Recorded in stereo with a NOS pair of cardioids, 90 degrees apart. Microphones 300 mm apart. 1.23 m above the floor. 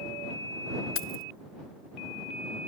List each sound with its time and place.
0.9 s keys jangling: 45° left